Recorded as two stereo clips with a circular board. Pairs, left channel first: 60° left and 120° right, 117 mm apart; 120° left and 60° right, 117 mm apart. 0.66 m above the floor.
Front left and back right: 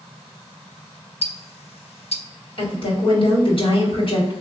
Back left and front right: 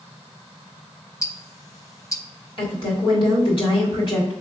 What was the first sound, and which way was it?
Ticking, 65° left.